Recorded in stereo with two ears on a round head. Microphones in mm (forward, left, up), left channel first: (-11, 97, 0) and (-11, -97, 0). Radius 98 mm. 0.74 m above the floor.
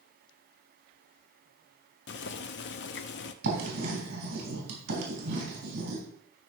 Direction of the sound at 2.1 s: 55° left (ahead or behind).